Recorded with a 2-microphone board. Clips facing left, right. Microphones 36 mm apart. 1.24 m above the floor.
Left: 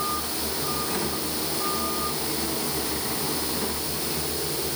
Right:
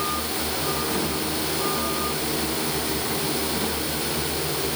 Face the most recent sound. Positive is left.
No sound to turn to.